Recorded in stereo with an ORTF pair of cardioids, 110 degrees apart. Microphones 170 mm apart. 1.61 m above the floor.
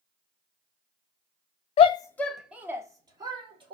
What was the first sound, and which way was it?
A shout, 40° left.